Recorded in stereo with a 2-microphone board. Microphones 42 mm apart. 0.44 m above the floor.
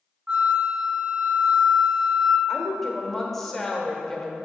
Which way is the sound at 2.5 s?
10° left (ahead or behind).